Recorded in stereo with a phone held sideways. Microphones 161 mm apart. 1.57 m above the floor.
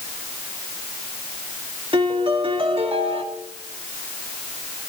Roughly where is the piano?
Right.